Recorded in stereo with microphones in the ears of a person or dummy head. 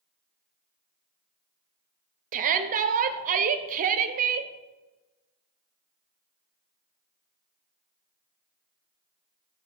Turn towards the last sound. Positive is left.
turn(degrees=-45)  # may be behind; listen again after turning